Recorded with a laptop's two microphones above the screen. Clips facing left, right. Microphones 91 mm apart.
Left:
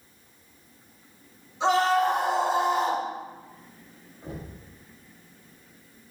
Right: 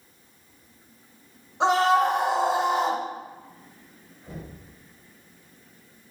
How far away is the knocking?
About 2 m.